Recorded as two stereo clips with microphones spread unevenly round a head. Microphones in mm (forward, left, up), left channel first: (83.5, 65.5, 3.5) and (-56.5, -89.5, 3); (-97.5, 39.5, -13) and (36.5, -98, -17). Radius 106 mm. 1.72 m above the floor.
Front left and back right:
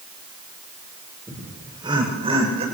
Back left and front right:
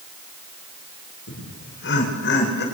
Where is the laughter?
150° left, 6.5 m; by 2.6 s 165° left, 8 m.